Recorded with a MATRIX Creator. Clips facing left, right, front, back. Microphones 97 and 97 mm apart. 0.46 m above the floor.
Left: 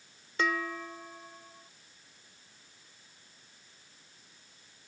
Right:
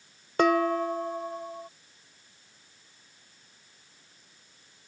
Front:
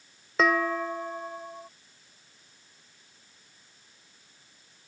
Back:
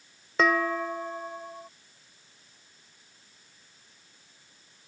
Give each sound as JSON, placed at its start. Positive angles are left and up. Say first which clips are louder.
{"t": 0.4, "sound": "dishes clattering", "louder": "right 10 dB, even", "azimuth_deg": -90}